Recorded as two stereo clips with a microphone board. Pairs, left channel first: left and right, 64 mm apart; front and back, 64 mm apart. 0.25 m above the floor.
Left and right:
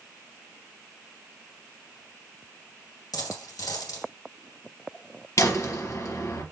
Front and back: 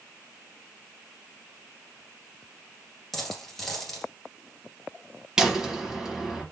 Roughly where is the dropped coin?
Left.